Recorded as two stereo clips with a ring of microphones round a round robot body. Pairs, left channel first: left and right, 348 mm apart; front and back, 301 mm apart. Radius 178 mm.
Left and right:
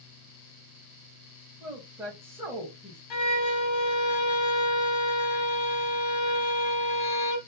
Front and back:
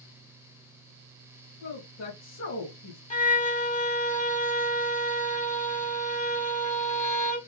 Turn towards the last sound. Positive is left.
turn(degrees=65)